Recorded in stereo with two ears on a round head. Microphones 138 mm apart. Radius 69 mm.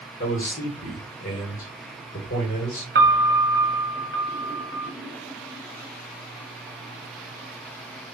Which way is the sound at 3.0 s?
65° right (ahead or behind).